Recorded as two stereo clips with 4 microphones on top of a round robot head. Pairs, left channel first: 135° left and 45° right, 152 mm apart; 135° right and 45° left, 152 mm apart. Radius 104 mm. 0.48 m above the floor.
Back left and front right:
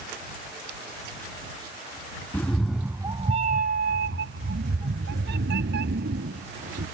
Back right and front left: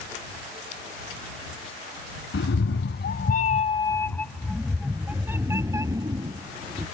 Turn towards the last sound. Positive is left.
turn(degrees=-20)